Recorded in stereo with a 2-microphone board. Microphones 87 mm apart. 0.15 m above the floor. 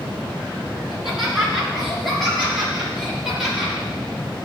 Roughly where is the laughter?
Centre.